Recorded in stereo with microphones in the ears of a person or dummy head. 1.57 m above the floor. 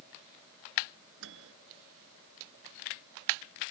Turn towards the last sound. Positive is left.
turn(degrees=-70)  # may be behind; listen again after turning